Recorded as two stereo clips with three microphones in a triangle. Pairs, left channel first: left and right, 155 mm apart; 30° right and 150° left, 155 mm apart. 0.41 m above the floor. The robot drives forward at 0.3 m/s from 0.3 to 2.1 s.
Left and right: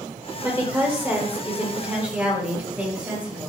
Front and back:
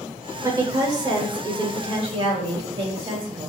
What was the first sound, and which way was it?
A woman speaking, 155° right.